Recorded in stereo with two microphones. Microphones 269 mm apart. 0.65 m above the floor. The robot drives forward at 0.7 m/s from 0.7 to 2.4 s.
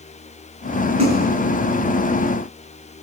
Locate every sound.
1.0 s a splash: 75° right (ahead or behind), 6.5 m